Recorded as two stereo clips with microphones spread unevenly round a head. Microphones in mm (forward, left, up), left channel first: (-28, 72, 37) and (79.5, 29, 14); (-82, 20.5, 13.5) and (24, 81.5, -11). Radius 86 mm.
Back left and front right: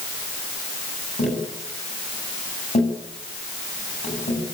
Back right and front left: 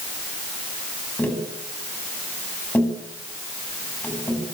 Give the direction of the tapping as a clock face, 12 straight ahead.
8 o'clock.